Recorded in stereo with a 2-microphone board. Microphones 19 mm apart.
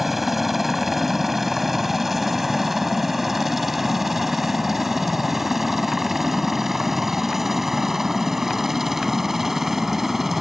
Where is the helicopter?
5° right (ahead or behind); by 10.4 s 10° right (ahead or behind).